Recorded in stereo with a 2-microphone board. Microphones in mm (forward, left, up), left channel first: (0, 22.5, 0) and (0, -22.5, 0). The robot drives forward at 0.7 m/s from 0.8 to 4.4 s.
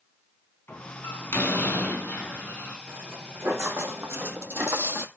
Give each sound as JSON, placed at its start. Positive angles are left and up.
{"t": 0.7, "sound": "a door slam", "side_deg": 60, "distance_m": 4.0}
{"t": 2.9, "sound": "footsteps", "side_deg": -80, "distance_m": 2.0}